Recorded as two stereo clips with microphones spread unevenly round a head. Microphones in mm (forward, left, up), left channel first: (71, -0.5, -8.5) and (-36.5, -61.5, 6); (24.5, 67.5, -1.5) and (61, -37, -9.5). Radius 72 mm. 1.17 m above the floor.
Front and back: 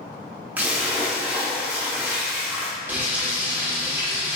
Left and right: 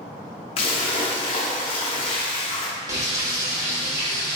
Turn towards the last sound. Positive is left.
turn(degrees=-105)